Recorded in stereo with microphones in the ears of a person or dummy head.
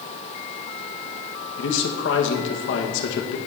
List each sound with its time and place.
1.6 s a man speaking: 70° left (ahead or behind), 1.5 m